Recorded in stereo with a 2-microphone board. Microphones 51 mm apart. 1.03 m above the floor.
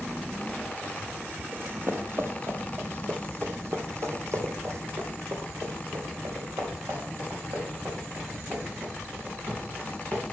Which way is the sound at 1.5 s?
40° right (ahead or behind).